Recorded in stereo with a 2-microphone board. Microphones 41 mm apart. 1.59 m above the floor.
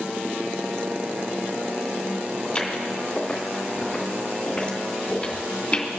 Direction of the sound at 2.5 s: 15° left (ahead or behind).